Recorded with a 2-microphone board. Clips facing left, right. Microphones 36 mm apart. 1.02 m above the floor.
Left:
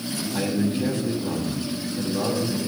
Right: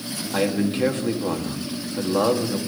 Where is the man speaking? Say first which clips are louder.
Right 3 dB; 65° right (ahead or behind), 1.8 m.